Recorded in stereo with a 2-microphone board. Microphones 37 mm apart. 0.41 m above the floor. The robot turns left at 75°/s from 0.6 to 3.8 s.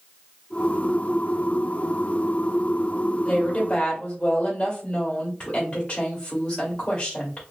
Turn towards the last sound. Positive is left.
turn(degrees=25)  # may be behind; listen again after turning